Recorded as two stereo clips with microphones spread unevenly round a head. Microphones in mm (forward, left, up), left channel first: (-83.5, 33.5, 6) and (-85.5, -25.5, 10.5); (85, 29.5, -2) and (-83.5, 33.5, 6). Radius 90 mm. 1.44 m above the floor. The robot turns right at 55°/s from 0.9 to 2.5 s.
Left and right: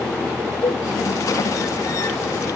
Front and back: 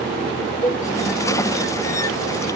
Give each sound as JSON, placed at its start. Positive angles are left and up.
{"t": 0.6, "sound": "a cowbell", "azimuth_deg": 25, "distance_m": 3.5}